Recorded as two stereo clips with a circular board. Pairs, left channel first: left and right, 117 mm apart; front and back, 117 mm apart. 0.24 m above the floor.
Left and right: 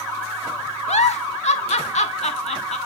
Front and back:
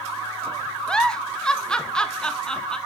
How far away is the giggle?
About 0.6 m.